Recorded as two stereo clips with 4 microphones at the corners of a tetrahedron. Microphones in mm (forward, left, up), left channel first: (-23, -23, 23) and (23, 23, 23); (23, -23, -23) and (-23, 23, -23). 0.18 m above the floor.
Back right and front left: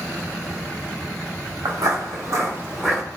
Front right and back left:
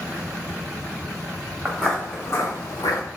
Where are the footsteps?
40° left, 1.2 m; by 3.0 s 45° right, 1.0 m.